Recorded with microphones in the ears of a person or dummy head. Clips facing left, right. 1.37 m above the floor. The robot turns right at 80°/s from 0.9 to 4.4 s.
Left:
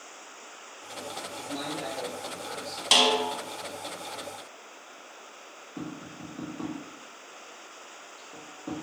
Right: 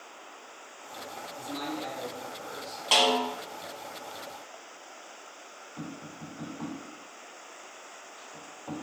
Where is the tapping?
60° left (ahead or behind), 1.6 m.